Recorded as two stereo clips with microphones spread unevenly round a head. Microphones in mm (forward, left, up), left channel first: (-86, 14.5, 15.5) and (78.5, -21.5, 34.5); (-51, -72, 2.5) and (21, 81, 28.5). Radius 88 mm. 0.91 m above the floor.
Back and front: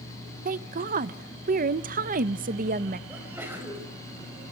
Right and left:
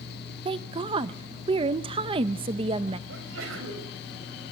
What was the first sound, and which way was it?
A woman speaking, 5° left.